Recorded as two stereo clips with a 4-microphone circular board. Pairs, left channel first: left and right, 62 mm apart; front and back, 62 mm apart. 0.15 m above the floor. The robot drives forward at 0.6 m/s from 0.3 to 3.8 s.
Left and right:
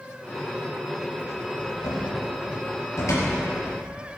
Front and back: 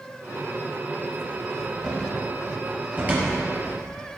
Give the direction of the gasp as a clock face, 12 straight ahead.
No gasp in this recording.